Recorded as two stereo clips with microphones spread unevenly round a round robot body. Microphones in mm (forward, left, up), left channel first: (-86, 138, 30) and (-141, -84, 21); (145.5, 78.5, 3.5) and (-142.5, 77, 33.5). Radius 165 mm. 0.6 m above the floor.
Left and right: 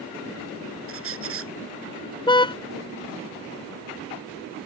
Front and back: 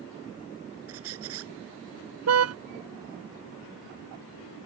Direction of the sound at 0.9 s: 125° right.